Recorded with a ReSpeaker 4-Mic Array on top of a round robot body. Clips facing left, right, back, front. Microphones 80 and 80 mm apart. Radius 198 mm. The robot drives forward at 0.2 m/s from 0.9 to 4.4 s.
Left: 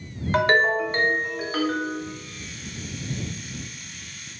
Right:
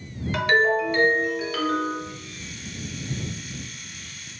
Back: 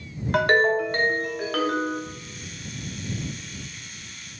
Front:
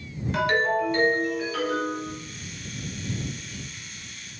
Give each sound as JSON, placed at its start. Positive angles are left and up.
{"t": 0.3, "sound": "a ringtone", "azimuth_deg": 145, "distance_m": 0.7}